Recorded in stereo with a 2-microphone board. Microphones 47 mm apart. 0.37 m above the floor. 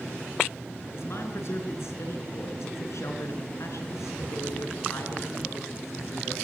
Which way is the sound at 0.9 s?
60° left (ahead or behind).